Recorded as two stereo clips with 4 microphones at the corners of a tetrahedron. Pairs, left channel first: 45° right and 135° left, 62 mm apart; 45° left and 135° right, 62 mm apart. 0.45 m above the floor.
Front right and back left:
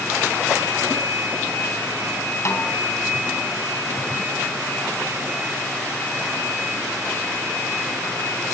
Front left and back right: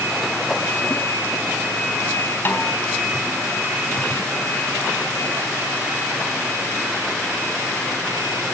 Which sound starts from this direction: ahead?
A snare drum, at 2.5 s.